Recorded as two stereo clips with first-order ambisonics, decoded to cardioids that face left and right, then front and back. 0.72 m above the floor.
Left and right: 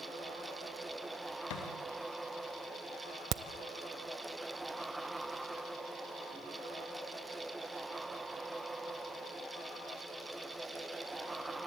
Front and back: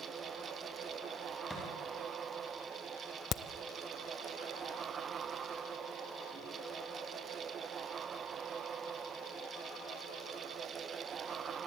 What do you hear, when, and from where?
1.5 s a thud: 85° left, 6.5 m
3.3 s a crack: 50° right, 0.7 m